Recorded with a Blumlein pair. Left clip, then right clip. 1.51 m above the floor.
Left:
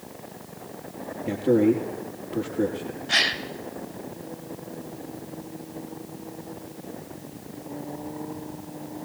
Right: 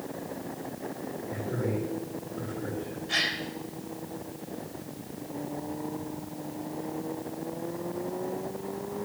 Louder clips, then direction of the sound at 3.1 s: Left 6 dB; 30° left.